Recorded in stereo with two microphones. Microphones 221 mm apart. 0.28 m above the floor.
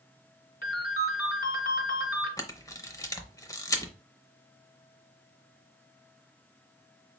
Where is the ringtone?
40° left (ahead or behind), 1.6 m.